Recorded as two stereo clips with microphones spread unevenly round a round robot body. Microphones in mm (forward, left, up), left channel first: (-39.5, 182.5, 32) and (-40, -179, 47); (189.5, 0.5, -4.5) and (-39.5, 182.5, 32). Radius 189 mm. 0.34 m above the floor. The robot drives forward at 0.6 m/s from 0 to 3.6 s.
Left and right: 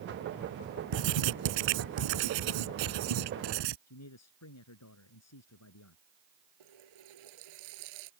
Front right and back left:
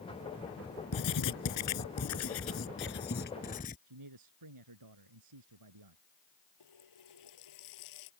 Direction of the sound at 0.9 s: 75° right.